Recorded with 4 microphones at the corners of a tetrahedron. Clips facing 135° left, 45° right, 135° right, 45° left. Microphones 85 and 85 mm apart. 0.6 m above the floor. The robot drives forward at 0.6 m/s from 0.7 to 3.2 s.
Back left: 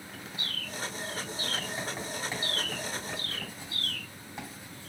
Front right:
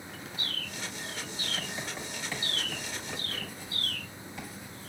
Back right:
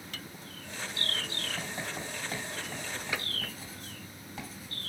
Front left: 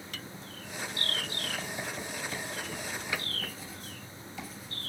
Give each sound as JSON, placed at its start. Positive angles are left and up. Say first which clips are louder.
{"t": 1.6, "sound": "writing", "louder": "back left 2 dB, even", "azimuth_deg": -150, "distance_m": 2.5}